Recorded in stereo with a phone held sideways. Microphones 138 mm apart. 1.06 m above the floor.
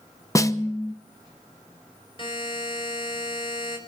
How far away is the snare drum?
About 0.8 m.